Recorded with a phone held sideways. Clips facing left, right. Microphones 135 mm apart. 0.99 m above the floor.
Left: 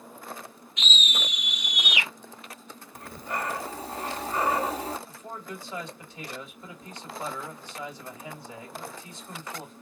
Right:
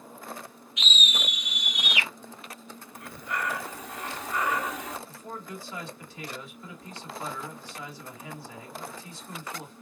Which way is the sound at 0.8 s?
35° left (ahead or behind).